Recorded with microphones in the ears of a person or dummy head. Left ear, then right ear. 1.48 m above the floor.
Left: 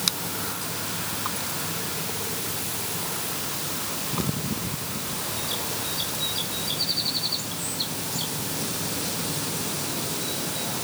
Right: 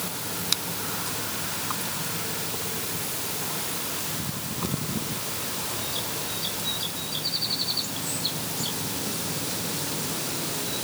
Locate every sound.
Only background noise.